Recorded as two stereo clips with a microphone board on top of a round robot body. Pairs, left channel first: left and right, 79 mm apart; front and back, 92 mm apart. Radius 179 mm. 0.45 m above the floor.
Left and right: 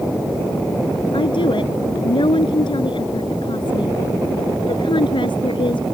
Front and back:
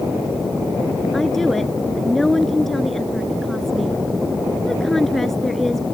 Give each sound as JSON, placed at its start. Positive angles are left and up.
{"t": 1.1, "sound": "a woman speaking", "azimuth_deg": 85}